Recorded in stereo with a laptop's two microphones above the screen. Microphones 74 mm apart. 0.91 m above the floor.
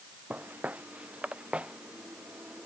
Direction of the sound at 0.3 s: 20° right (ahead or behind).